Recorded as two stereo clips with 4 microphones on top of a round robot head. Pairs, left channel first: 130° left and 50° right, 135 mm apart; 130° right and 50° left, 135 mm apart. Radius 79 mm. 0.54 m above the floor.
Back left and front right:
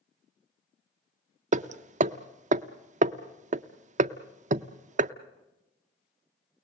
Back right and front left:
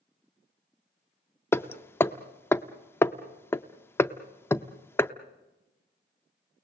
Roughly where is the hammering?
Ahead right.